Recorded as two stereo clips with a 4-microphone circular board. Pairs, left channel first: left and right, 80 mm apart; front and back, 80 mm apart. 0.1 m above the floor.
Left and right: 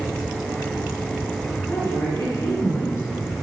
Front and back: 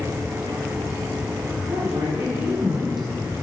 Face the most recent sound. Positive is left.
turn(degrees=90)